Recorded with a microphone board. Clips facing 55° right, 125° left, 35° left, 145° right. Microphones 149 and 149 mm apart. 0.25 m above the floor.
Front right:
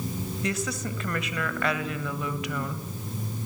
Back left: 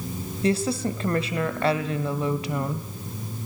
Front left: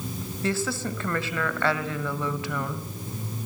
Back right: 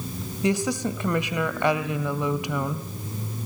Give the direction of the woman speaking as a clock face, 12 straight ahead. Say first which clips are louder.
Back left 9 dB, back right 4 dB; 7 o'clock.